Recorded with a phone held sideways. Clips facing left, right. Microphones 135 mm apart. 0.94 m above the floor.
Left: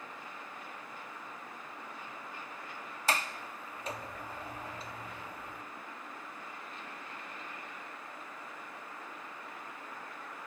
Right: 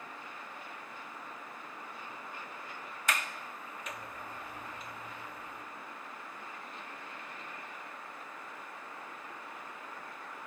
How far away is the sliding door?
About 1.5 m.